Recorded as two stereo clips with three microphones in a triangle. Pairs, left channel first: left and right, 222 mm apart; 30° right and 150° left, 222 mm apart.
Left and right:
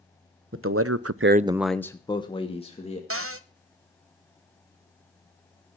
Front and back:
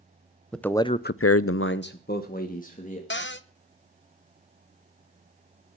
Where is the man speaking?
120° right, 1.0 m; by 3.0 s 25° left, 2.5 m.